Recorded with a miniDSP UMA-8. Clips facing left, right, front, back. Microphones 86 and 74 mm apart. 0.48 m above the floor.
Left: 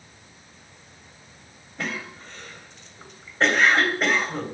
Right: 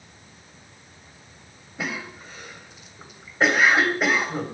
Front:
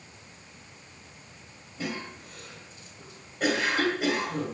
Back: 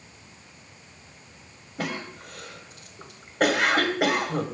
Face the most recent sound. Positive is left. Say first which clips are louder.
# right 1 dB, back 3 dB
turn(degrees=-170)